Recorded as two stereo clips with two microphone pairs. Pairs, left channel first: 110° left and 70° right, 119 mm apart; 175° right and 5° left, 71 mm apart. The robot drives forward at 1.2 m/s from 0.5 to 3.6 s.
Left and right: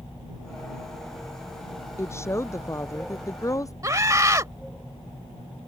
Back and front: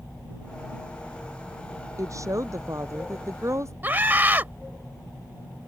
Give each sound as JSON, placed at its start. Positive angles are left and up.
{"t": 2.0, "sound": "a woman speaking", "azimuth_deg": 45}
{"t": 3.8, "sound": "a scream", "azimuth_deg": -30}